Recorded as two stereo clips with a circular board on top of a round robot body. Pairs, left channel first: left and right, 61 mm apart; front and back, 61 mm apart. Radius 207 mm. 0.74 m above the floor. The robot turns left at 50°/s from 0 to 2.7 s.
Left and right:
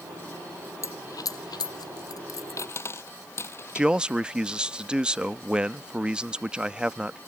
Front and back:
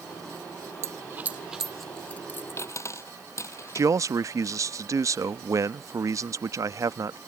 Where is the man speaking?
160° right.